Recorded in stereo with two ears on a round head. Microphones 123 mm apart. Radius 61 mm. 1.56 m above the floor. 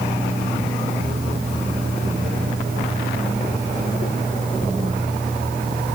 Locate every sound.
Only background noise.